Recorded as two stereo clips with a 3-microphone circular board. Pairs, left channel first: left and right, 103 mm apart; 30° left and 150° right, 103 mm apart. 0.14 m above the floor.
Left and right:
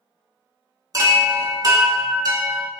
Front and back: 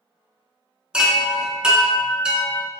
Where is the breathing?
No breathing in this recording.